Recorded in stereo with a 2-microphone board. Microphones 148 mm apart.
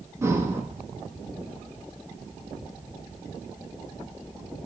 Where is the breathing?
20° right (ahead or behind), 1.5 m.